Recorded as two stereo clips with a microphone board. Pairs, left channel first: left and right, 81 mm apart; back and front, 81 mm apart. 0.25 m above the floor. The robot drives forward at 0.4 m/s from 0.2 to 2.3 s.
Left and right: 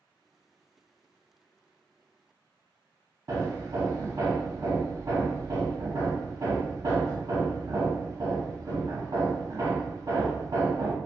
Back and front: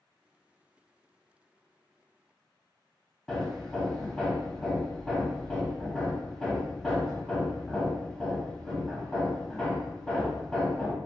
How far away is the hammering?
About 0.6 m.